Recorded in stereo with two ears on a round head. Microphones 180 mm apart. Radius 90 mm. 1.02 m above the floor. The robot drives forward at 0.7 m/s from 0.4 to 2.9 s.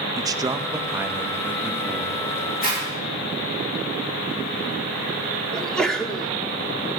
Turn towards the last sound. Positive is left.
turn(degrees=5)  # may be behind; listen again after turning